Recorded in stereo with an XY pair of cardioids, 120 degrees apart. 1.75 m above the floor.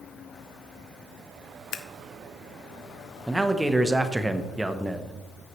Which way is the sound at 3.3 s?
10° right.